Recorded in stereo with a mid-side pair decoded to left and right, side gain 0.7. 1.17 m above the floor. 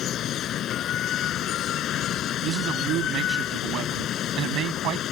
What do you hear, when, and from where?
0.0 s running water: 45° left
2.4 s a man speaking: 55° right